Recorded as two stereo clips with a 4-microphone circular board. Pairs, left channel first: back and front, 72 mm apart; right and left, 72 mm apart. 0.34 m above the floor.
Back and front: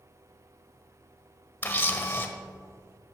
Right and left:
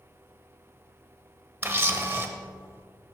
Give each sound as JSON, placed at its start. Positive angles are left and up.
{"t": 1.6, "sound": "a camera shutter", "azimuth_deg": 130, "distance_m": 1.0}